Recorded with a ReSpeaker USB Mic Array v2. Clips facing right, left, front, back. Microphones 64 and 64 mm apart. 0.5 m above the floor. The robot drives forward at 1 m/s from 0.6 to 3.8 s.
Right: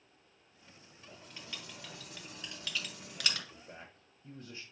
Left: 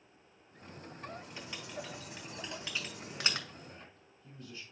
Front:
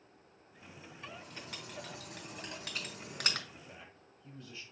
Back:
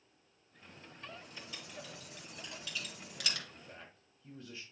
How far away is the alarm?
No alarm in this recording.